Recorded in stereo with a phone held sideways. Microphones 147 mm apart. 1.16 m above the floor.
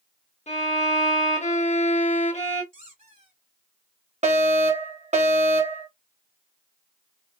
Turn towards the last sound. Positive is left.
turn(degrees=-50)  # may be behind; listen again after turning